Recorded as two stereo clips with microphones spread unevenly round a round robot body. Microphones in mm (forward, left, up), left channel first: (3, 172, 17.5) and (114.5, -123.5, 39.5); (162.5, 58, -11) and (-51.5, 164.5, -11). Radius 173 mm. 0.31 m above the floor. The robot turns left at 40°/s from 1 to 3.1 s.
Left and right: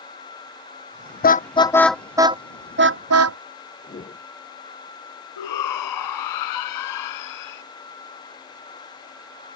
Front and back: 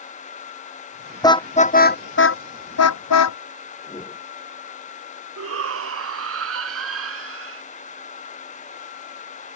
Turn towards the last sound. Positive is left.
turn(degrees=135)